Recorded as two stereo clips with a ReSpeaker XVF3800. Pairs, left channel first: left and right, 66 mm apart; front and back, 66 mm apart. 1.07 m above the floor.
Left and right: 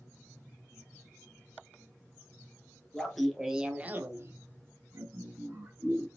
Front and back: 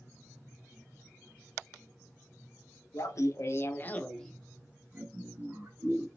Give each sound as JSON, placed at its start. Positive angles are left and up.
{"t": 2.9, "sound": "laughter", "azimuth_deg": 5, "distance_m": 0.9}